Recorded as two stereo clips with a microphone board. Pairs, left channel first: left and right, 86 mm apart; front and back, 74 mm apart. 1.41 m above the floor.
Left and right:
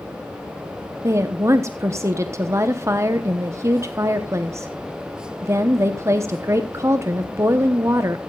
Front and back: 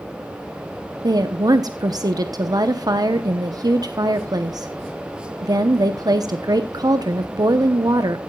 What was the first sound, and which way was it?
A woman speaking, 145° right.